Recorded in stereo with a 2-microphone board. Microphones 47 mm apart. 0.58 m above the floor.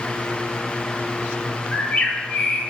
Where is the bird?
30° left (ahead or behind), 2 m.